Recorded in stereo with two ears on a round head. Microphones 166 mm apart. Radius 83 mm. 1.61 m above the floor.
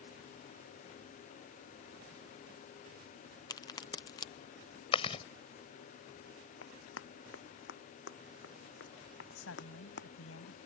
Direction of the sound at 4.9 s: 30° left (ahead or behind).